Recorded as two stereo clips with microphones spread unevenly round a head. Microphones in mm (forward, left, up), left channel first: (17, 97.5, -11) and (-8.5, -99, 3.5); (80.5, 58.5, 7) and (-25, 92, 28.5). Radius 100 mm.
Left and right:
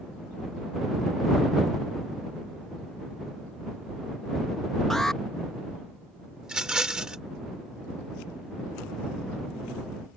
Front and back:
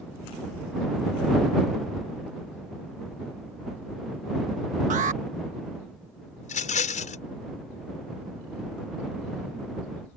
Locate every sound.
4.9 s an alarm: 170° left
6.4 s a rattle: 10° right